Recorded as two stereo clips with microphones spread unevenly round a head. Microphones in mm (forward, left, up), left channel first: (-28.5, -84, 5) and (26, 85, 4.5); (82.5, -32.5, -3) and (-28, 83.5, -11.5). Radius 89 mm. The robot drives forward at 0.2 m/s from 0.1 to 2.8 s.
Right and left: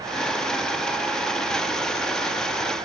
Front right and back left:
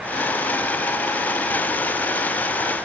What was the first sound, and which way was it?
Only background noise.